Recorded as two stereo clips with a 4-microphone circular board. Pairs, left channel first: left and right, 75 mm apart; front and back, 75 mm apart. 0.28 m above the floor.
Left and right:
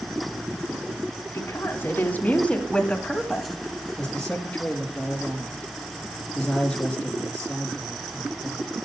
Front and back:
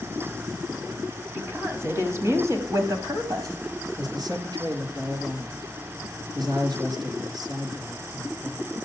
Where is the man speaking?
170° left, 4 m.